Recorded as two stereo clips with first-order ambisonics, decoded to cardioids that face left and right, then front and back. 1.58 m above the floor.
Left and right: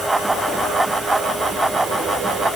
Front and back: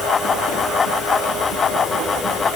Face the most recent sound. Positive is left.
No sound to turn to.